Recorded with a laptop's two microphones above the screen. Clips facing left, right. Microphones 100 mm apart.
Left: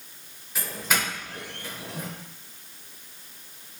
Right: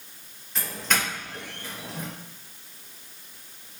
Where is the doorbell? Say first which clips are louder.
Even; 5° left (ahead or behind), 1.0 m.